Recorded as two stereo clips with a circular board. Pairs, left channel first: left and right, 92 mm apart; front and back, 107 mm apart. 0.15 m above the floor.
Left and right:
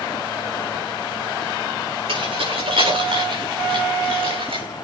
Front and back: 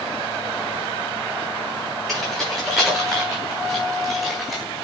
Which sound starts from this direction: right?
Keys jangling, at 2.1 s.